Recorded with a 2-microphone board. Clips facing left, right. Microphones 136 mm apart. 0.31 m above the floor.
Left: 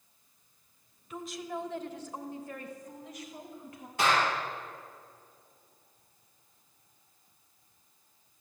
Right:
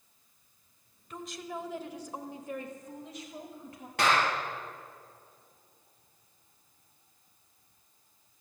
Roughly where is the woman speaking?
Centre.